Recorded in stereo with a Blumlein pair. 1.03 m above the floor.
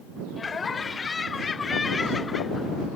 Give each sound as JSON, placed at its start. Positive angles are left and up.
{"t": 0.4, "sound": "laughter", "azimuth_deg": 15}